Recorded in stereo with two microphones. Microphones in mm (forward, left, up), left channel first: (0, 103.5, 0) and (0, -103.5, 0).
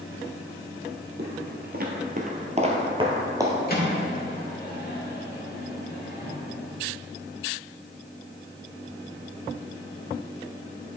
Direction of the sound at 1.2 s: 55° right (ahead or behind).